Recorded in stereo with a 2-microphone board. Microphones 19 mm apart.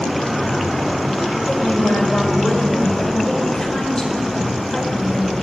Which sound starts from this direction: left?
A woman speaking, at 1.5 s.